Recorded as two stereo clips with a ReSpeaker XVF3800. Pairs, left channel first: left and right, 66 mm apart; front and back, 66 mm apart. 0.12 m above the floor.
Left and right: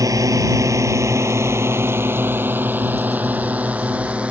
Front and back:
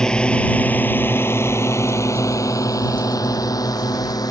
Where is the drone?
80° right; by 4.3 s 20° right.